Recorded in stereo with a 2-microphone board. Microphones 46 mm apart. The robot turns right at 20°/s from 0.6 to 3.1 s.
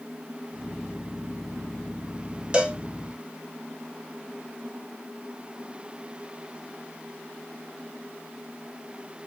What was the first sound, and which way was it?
A cowbell, 15° right (ahead or behind).